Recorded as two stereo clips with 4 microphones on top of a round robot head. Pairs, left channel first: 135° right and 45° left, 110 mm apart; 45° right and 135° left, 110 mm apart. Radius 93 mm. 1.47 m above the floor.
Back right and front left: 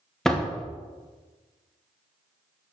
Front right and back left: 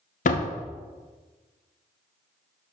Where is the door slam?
50° right, 0.8 m.